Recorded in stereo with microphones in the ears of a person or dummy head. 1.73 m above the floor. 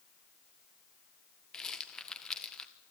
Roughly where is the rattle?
Centre.